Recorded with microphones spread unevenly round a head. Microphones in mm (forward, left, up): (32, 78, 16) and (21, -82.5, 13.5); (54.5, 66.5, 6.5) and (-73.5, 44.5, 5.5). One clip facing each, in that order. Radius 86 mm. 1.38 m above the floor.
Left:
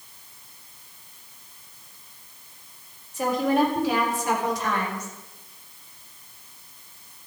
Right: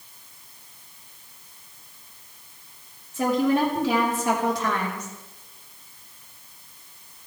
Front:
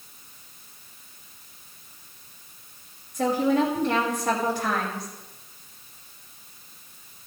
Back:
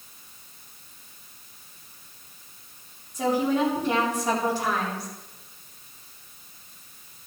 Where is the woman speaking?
85° right, 4 m.